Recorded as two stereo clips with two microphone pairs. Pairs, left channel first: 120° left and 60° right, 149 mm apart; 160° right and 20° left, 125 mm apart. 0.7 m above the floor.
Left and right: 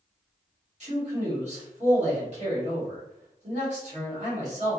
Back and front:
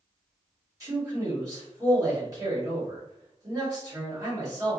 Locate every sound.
0.8 s a man speaking: 35° right, 1.5 m